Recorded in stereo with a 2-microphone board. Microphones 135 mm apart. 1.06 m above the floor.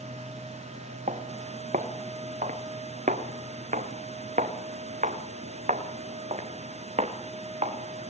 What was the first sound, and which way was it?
Footsteps, 70° right (ahead or behind).